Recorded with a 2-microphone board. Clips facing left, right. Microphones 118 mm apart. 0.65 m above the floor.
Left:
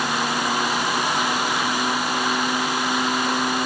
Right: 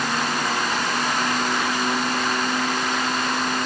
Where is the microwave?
I don't hear a microwave.